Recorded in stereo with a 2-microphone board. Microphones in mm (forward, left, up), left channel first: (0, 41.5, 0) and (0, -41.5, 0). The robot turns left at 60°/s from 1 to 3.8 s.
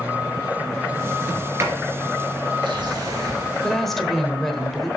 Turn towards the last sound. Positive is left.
turn(degrees=5)  # may be behind; listen again after turning